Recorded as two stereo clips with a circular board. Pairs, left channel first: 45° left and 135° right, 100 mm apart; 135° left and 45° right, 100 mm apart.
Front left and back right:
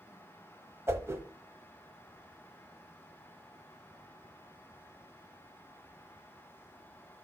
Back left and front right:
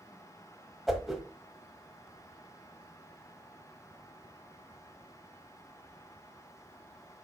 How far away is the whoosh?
About 1.2 m.